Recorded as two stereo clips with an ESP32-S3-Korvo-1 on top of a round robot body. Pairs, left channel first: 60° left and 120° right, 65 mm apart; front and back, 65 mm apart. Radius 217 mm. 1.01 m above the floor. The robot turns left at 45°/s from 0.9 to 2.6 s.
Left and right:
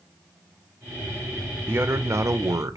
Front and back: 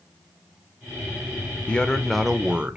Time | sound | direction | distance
1.7 | a man speaking | 70° right | 0.6 m